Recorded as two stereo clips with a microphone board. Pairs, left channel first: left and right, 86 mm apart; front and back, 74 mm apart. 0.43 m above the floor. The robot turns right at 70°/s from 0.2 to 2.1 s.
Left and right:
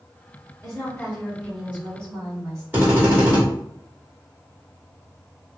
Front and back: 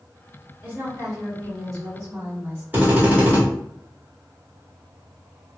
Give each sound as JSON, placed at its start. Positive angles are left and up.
{"t": 0.6, "sound": "a woman speaking", "azimuth_deg": 125, "distance_m": 1.8}
{"t": 2.7, "sound": "a drill", "azimuth_deg": -140, "distance_m": 1.6}